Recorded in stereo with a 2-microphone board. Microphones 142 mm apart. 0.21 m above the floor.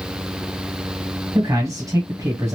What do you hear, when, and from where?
1.4 s a man speaking: 25° right (ahead or behind), 1.1 m